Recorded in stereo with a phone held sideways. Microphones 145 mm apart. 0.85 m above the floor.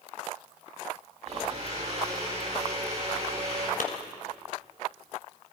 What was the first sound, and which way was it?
A blender, 50° right (ahead or behind).